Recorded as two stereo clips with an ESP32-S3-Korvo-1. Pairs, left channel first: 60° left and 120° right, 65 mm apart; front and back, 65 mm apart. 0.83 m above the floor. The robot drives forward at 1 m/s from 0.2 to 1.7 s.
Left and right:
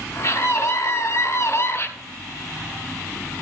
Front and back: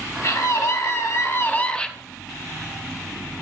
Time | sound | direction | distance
0.2 | a scream | 15° left | 1.9 m